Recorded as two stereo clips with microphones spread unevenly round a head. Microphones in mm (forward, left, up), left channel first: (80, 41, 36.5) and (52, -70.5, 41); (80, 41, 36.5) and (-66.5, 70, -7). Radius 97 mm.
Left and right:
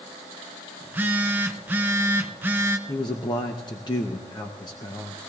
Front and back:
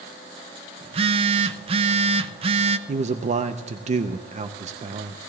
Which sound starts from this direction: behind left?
A man speaking, at 2.9 s.